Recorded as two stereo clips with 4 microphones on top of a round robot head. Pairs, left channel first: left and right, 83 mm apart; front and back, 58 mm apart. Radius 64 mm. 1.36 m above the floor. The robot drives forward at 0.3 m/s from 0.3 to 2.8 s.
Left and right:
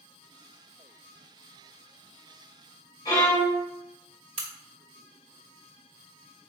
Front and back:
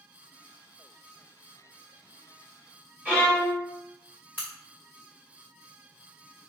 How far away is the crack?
About 0.9 m.